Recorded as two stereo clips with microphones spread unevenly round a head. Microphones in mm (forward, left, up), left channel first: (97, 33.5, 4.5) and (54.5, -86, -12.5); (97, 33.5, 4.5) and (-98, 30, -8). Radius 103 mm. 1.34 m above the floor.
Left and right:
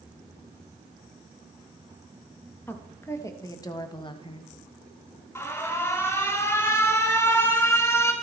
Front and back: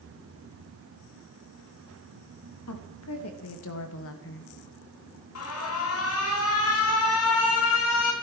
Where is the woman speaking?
5° right, 3 m; by 4.5 s 30° left, 1.6 m.